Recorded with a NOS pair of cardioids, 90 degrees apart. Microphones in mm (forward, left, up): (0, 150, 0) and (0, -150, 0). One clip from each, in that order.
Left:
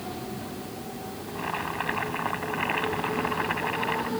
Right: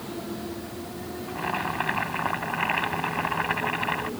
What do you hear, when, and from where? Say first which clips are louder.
1.3 s boiling: right 2 dB; 20° right